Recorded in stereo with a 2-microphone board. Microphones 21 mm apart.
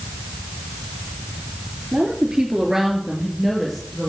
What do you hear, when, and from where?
1.9 s a woman speaking: 50° right (ahead or behind), 2 m; by 4.1 s 15° left (ahead or behind), 2.5 m